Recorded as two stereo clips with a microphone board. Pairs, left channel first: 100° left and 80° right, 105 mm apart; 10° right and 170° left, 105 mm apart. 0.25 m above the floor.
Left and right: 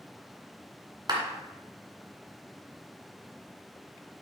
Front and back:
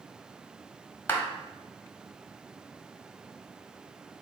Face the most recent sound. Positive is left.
turn(degrees=-75)